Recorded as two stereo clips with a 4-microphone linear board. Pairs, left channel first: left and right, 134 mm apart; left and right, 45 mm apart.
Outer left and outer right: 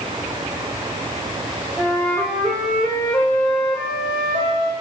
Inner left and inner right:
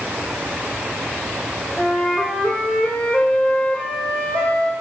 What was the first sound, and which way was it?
A flute, 10° left (ahead or behind).